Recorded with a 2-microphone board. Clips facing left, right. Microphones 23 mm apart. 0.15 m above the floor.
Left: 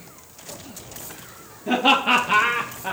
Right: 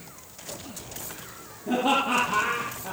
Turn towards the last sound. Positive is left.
turn(degrees=65)  # may be behind; listen again after turning